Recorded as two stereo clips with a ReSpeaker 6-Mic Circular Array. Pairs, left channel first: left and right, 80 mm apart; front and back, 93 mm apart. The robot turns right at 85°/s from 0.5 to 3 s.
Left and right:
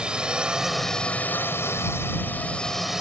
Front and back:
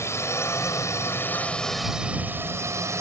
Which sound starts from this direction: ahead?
A drone, at 0.0 s.